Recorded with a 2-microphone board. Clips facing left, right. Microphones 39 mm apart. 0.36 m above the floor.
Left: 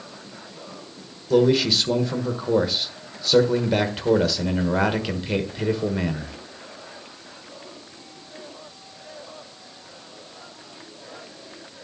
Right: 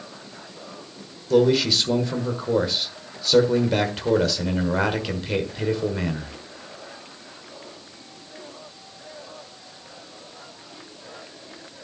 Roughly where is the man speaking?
Centre.